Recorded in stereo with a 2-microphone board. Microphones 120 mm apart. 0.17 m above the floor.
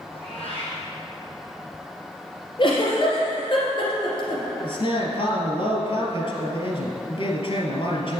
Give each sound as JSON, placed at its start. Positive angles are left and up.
{"t": 0.1, "sound": "a cat meowing", "side_deg": 60, "distance_m": 4.0}
{"t": 2.6, "sound": "a giggle", "side_deg": 45, "distance_m": 3.0}
{"t": 4.6, "sound": "a man speaking", "side_deg": 55, "distance_m": 3.0}